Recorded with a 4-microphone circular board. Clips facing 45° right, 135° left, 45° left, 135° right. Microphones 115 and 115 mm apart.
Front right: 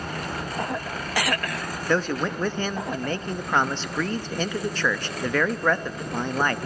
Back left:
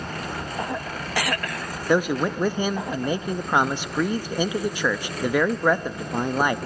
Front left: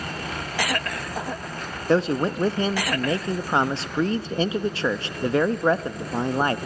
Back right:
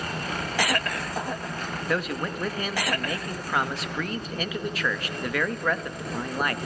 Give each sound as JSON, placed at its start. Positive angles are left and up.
{"t": 1.9, "sound": "a man speaking", "azimuth_deg": 65, "distance_m": 0.5}